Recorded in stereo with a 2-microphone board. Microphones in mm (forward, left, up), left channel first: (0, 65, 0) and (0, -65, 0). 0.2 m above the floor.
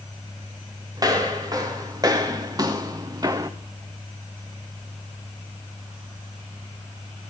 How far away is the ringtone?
No ringtone in this recording.